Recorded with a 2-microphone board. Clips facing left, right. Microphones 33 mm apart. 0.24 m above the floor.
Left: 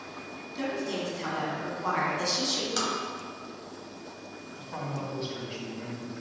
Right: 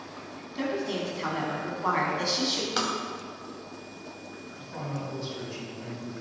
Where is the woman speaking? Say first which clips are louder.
Right 2 dB; 20° right (ahead or behind), 1.6 m.